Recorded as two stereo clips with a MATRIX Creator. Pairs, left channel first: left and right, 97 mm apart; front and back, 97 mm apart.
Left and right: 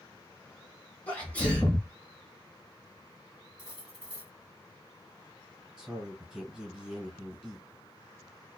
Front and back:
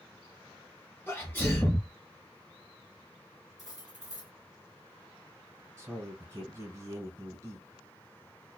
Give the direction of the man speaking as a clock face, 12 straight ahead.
6 o'clock.